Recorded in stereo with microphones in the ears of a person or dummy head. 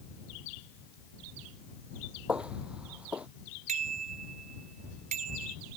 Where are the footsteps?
5° right (ahead or behind).